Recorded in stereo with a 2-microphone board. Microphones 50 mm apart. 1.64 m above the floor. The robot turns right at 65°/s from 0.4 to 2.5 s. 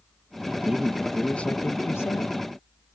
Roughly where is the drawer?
I don't hear a drawer.